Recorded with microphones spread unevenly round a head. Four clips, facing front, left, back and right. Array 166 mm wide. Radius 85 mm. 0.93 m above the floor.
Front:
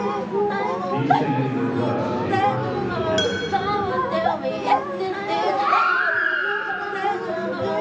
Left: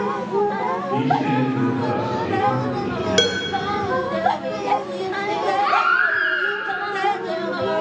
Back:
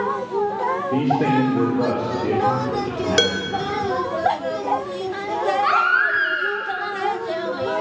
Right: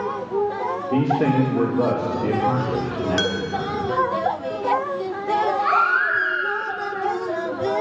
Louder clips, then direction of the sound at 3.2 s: Left 3 dB, back 2 dB; 145° left.